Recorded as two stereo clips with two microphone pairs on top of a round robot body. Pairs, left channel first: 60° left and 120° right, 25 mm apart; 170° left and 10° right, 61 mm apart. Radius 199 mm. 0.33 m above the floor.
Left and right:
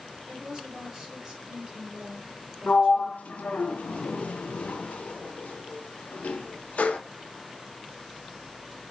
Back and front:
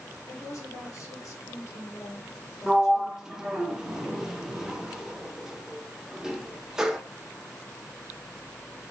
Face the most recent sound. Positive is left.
turn(degrees=75)